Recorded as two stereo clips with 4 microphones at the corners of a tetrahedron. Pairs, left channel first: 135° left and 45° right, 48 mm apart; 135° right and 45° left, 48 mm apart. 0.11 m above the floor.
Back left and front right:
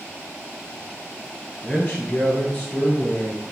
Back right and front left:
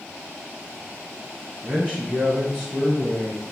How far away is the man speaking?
About 1.8 m.